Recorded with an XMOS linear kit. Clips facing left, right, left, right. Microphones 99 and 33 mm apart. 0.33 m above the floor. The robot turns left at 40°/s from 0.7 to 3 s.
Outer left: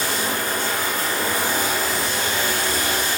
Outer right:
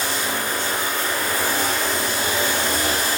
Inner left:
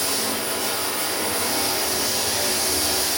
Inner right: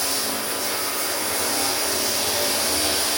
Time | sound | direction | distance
0.0 | running water | 50° left | 1.1 m